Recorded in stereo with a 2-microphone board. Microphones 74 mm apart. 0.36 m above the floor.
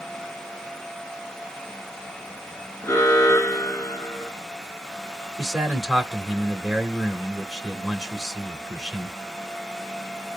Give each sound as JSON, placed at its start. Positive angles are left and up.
{"t": 2.8, "sound": "an alarm", "side_deg": 45, "distance_m": 1.6}
{"t": 5.4, "sound": "a man speaking", "side_deg": 0, "distance_m": 1.3}